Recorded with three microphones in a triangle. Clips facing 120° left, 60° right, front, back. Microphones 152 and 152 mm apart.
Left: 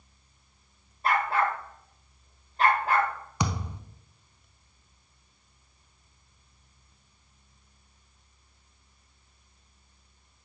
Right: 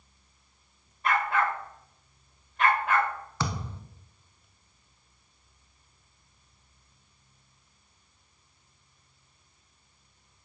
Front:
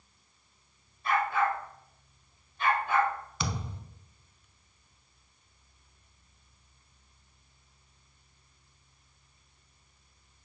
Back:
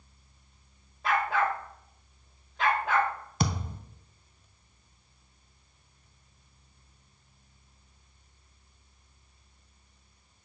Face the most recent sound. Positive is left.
turn(degrees=-175)